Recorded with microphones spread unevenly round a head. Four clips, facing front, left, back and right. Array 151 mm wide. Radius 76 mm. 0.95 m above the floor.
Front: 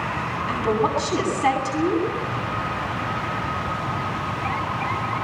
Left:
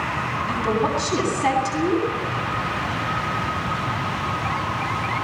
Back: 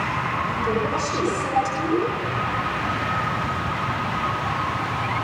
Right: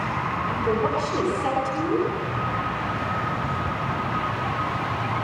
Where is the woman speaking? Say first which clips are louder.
Left 2 dB, front 5 dB; 50° left, 9.5 m.